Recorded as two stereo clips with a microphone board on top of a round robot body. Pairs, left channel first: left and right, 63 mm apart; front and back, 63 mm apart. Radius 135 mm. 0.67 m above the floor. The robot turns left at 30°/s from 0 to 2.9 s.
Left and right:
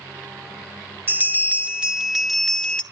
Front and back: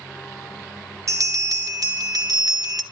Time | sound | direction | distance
1.1 | a bell | 145° right | 1.7 m